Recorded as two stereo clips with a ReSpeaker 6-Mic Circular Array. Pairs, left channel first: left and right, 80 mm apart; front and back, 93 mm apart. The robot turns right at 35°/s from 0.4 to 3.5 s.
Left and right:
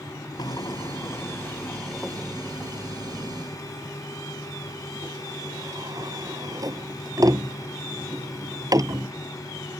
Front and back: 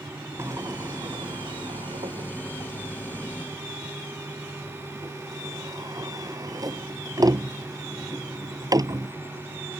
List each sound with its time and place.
0.4 s a sliding door: 120° left; by 9.1 s 130° right